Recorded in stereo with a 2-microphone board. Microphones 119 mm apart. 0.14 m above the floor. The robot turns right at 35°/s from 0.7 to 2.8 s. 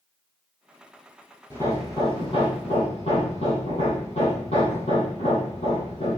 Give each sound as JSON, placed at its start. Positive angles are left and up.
{"t": 1.5, "sound": "hammering", "azimuth_deg": 20, "distance_m": 5.0}